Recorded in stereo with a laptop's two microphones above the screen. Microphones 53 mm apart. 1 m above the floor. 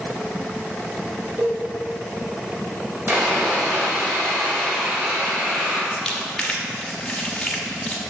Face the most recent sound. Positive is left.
turn(degrees=15)  # may be behind; listen again after turning